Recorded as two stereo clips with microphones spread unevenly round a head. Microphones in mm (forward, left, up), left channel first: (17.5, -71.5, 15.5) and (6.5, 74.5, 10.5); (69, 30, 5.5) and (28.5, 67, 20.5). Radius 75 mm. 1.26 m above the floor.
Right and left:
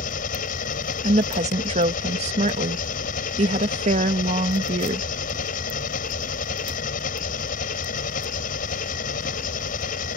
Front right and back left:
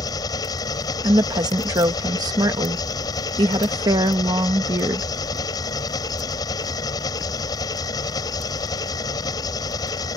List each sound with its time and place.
0.0 s an engine running: 50° right
1.0 s a woman speaking: 145° left